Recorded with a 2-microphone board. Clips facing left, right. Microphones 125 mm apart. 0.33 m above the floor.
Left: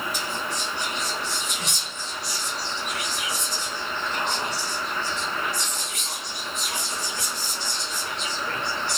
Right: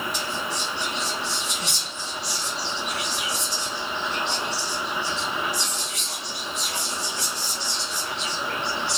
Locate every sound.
0.1 s whispering: 55° left (ahead or behind), 2.5 m